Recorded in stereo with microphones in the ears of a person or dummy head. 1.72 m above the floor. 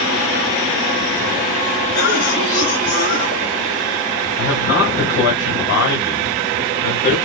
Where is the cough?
40° left (ahead or behind), 3 m.